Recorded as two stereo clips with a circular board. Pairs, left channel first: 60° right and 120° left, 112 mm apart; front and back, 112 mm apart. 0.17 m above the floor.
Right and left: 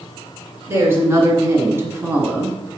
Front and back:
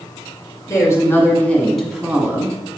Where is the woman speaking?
55° left, 1.9 m; by 2.6 s 170° left, 1.3 m.